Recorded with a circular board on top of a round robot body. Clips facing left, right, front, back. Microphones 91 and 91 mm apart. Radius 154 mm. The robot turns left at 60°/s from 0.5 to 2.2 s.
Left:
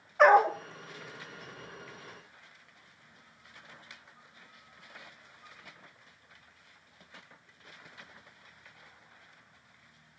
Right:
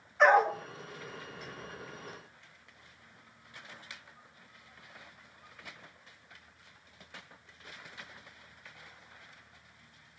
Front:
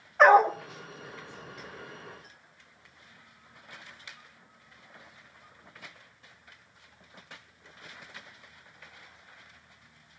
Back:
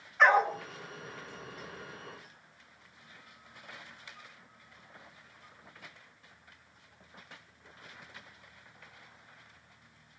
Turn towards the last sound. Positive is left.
turn(degrees=-50)